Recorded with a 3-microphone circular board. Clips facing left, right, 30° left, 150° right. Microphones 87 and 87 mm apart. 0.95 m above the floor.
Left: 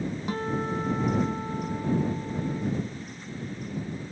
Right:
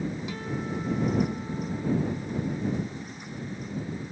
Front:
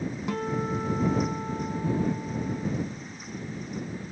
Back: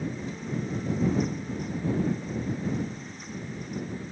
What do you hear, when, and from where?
0.3 s a guitar: 45° left